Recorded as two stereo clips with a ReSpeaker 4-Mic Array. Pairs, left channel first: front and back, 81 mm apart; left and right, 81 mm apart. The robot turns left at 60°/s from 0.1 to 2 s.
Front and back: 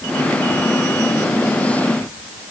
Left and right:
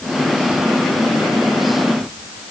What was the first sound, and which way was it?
Only background noise.